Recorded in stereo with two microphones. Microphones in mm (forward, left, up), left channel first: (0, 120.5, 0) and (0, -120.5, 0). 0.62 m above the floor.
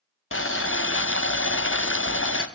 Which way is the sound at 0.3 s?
55° left (ahead or behind).